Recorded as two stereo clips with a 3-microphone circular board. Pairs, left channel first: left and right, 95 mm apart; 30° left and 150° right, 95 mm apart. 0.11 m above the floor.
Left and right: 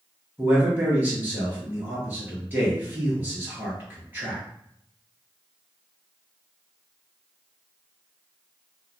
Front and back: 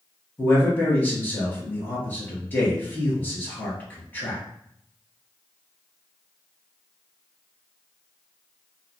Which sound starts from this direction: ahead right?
A man speaking, at 0.4 s.